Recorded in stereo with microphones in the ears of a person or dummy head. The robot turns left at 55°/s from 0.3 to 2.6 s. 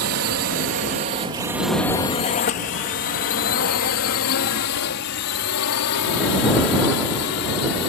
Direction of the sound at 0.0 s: 65° right (ahead or behind).